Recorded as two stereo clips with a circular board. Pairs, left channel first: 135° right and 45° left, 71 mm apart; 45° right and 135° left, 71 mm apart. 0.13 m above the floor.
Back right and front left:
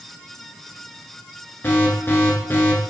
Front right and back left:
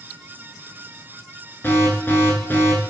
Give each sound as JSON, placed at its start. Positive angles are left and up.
{"t": 1.6, "sound": "an alarm", "azimuth_deg": -90, "distance_m": 1.0}